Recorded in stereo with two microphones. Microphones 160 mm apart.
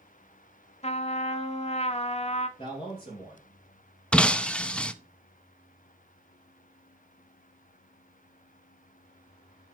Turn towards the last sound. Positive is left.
turn(degrees=5)  # may be behind; listen again after turning